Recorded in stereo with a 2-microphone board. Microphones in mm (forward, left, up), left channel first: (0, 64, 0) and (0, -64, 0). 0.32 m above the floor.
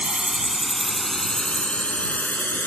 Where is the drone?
10° right (ahead or behind); by 2.7 s 15° left (ahead or behind).